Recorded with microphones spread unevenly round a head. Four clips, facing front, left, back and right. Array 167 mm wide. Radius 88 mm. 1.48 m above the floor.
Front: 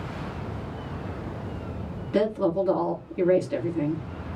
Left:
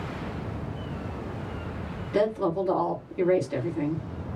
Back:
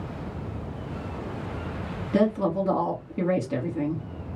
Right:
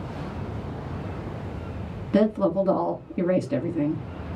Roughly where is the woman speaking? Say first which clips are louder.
Right 4 dB, even; behind right.